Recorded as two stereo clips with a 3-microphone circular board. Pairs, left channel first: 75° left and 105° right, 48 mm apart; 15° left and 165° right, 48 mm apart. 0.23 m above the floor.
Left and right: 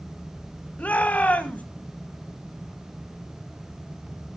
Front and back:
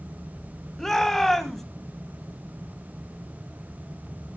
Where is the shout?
95° left, 1.4 m.